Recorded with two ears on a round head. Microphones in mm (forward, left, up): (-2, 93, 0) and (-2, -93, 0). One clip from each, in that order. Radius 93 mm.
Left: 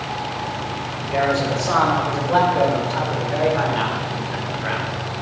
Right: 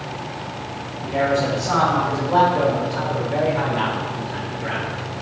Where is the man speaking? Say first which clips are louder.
Even; 45° left (ahead or behind), 5 m; by 4.9 s 60° left (ahead or behind), 3 m.